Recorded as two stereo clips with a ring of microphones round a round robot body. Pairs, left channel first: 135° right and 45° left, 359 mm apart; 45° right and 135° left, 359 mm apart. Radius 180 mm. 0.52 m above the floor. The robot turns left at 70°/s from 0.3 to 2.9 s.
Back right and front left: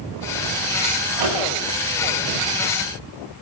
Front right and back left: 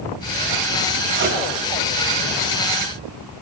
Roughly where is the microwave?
Left.